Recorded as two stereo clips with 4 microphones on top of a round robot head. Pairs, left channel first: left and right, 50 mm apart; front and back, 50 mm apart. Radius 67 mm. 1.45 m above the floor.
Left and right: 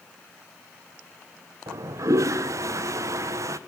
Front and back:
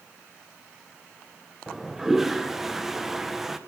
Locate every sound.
1.7 s a toilet flushing: 95° right, 1.4 m